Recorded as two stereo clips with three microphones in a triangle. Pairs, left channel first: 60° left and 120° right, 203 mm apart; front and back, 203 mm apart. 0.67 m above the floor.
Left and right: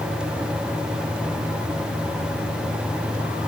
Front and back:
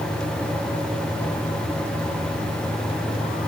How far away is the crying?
No crying in this recording.